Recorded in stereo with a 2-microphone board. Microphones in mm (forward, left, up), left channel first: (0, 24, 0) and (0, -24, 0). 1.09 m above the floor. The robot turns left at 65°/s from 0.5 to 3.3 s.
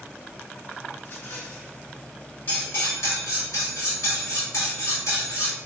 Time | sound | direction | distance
1.0 | a rattle | 130° left | 1.7 m
2.5 | cutlery clinking | 135° left | 1.3 m